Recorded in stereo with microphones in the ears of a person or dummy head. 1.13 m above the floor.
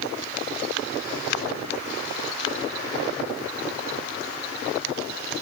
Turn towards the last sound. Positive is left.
No sound to turn to.